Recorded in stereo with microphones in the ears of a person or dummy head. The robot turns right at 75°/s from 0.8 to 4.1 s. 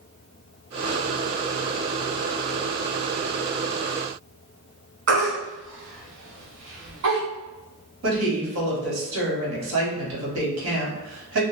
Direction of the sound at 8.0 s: 80° right.